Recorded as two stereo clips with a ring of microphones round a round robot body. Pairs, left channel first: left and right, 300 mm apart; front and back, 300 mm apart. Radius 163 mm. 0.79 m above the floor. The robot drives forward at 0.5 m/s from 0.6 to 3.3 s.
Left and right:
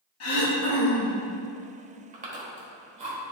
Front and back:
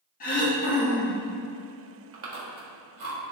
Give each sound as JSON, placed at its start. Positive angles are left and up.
{"t": 0.2, "sound": "throat clearing", "azimuth_deg": 60, "distance_m": 1.2}
{"t": 2.1, "sound": "chewing", "azimuth_deg": -150, "distance_m": 1.7}